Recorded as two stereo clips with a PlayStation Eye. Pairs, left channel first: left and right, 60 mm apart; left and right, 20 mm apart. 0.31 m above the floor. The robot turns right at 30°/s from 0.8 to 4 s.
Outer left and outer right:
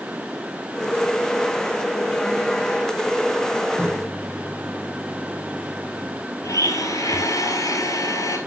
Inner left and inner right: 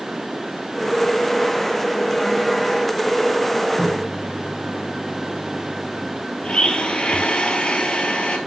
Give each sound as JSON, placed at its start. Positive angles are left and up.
{"t": 3.8, "sound": "a microwave", "side_deg": -30, "distance_m": 2.5}
{"t": 6.4, "sound": "a blender", "side_deg": 80, "distance_m": 1.5}